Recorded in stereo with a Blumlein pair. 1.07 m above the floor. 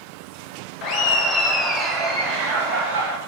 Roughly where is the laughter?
Ahead left.